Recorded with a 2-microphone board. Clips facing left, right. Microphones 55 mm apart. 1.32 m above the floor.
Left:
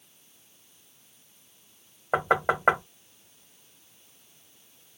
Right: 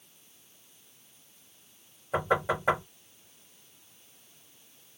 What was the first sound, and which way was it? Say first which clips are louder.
Knocking: left 3 dB; 60° left (ahead or behind).